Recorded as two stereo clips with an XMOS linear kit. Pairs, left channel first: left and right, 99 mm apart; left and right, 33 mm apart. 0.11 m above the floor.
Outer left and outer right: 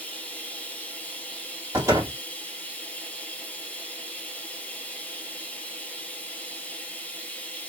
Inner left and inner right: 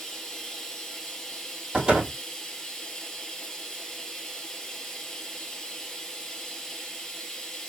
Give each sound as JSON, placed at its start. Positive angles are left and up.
{"t": 0.0, "sound": "running water", "side_deg": 15, "distance_m": 0.9}
{"t": 1.7, "sound": "a door slam", "side_deg": -30, "distance_m": 2.5}